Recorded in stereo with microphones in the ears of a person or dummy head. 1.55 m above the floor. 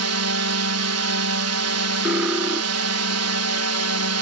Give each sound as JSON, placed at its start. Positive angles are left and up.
{"t": 0.0, "sound": "a drone", "side_deg": -80}
{"t": 2.0, "sound": "cutlery clinking", "side_deg": -5}